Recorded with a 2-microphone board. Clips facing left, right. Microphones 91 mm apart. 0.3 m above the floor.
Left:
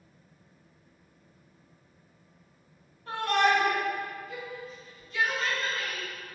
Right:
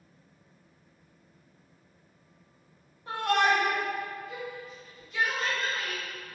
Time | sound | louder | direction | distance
3.1 | a shout | even | 15° right (ahead or behind) | 1.1 m